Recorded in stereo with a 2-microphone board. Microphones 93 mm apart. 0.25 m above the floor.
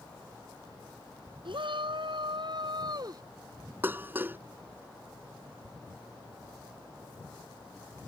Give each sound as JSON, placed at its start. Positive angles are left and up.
{"t": 1.4, "sound": "a shout", "side_deg": -70}
{"t": 3.8, "sound": "dishes clattering", "side_deg": -25}